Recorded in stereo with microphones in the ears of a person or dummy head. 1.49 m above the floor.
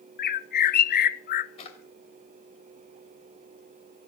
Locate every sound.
0.2 s a bird: 50° left (ahead or behind), 0.6 m
1.6 s a drawer: 40° left (ahead or behind), 2.5 m